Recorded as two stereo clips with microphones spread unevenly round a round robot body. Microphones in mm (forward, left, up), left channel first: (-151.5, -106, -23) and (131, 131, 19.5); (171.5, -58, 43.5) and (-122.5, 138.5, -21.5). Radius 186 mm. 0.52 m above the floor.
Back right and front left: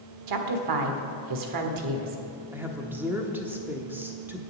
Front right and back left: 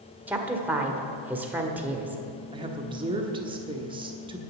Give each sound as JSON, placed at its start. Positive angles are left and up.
{"t": 0.3, "sound": "a woman speaking", "azimuth_deg": 70, "distance_m": 1.5}
{"t": 2.5, "sound": "a woman speaking", "azimuth_deg": 135, "distance_m": 1.0}